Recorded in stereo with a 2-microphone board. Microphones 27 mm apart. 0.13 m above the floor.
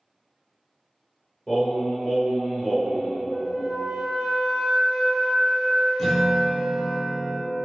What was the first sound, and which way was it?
Singing, 10° left (ahead or behind).